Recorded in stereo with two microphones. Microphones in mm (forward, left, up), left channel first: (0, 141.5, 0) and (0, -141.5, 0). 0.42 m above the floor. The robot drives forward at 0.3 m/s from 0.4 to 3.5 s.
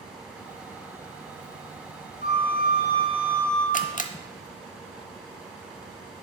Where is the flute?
45° left (ahead or behind), 3 m; by 3.6 s 40° left (ahead or behind), 3 m.